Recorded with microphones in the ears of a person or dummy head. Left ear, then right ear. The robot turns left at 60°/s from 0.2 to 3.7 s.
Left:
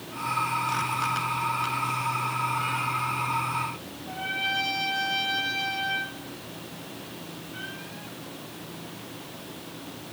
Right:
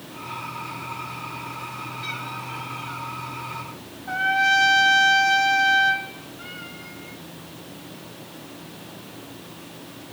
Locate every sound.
4.1 s a trumpet: 55° right (ahead or behind), 0.8 m